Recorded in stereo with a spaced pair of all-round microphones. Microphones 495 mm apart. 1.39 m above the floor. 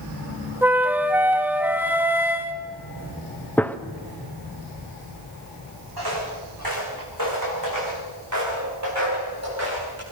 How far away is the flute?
About 1.2 m.